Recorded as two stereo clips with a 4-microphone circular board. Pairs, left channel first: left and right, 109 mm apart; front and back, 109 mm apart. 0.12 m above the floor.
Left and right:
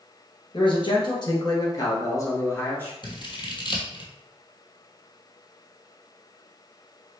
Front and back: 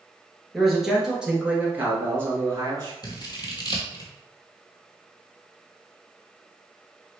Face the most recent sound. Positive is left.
turn(degrees=45)